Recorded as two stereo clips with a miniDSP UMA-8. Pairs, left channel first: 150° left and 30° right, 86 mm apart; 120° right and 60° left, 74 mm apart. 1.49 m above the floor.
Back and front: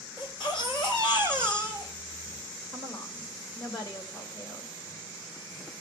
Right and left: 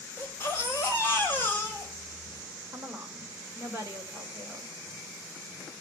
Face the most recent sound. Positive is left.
turn(degrees=125)